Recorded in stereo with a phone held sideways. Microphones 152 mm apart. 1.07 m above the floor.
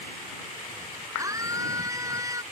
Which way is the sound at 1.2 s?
20° right (ahead or behind).